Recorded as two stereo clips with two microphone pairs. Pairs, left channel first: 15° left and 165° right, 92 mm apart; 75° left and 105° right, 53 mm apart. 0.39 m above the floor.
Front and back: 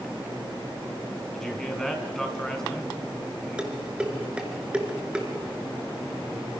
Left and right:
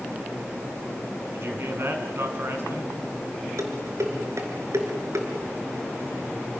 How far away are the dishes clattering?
About 3.5 m.